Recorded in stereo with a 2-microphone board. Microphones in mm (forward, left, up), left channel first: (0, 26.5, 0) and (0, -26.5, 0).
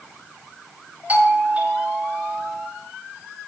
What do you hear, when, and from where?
1.1 s a doorbell: 25° right (ahead or behind), 1.7 m